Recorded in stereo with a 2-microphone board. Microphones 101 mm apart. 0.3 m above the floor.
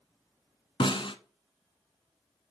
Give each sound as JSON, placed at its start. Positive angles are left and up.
{"t": 0.8, "sound": "a snare drum", "side_deg": 60, "distance_m": 0.7}